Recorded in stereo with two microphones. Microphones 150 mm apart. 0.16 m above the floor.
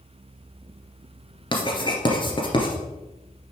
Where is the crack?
I don't hear a crack.